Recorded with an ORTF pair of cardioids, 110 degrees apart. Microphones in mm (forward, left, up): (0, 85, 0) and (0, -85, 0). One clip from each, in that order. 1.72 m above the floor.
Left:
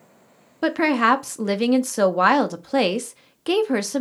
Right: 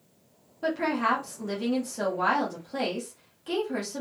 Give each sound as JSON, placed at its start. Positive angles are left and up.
{"t": 0.6, "sound": "a woman speaking", "azimuth_deg": 65, "distance_m": 0.6}